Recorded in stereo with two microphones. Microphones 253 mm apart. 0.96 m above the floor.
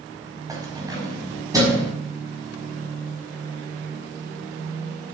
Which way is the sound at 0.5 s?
15° right (ahead or behind).